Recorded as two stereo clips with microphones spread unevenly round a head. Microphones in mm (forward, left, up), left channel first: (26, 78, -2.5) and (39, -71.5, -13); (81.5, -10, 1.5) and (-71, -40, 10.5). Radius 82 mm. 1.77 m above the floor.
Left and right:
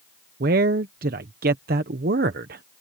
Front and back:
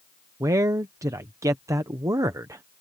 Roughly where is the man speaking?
Right.